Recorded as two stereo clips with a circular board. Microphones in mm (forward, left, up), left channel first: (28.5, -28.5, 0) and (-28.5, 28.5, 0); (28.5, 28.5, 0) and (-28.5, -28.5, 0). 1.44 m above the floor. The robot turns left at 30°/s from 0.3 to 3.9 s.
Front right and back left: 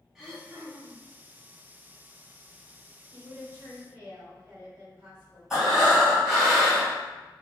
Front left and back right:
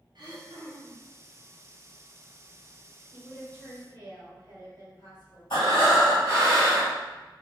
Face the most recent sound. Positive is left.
turn(degrees=50)